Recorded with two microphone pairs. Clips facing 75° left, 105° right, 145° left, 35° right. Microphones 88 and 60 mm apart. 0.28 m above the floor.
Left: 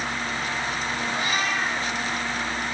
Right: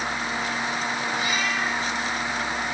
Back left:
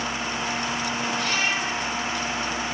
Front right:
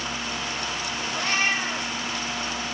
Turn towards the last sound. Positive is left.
turn(degrees=30)